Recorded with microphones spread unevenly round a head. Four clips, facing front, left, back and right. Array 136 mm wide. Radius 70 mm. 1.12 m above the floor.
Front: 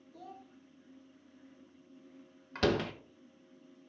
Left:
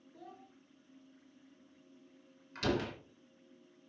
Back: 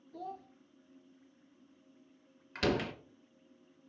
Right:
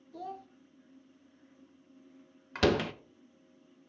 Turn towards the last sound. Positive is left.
turn(degrees=-75)